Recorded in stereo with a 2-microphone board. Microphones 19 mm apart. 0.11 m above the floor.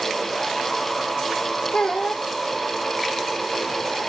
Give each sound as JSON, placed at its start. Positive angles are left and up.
{"t": 1.7, "sound": "a child speaking", "side_deg": 50, "distance_m": 3.0}